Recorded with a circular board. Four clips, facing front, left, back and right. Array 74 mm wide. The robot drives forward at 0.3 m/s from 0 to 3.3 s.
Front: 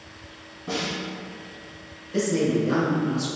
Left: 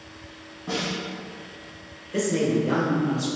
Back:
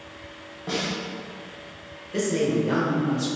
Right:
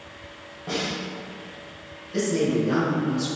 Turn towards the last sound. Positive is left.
turn(degrees=145)